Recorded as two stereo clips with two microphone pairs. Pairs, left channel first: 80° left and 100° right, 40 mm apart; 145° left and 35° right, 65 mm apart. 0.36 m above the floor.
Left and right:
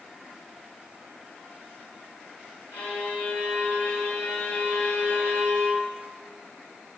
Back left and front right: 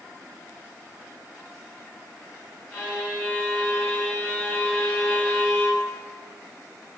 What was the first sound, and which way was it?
A violin, 95° left.